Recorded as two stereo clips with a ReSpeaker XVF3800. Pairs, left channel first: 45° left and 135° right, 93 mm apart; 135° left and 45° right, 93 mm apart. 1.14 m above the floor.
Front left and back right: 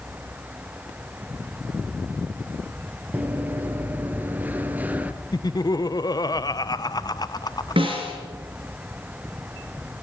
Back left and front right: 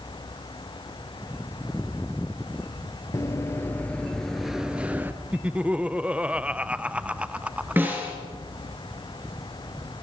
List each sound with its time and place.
3.1 s running footsteps: 165° left, 1.4 m; by 5.1 s 80° right, 1.2 m
5.3 s laughter: 30° left, 0.7 m
7.8 s a snare drum: 115° right, 5 m